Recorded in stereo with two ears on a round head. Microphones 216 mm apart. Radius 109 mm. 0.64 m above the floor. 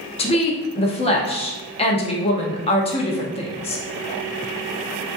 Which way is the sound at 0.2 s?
25° left (ahead or behind).